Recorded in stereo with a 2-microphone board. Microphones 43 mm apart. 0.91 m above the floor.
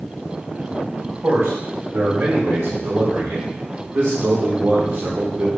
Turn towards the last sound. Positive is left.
turn(degrees=-50)  # may be behind; listen again after turning